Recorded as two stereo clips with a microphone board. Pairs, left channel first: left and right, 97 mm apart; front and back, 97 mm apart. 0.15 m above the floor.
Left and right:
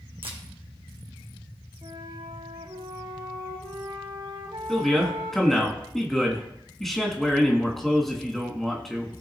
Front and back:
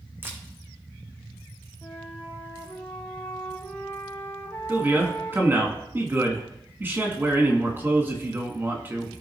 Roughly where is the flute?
Right.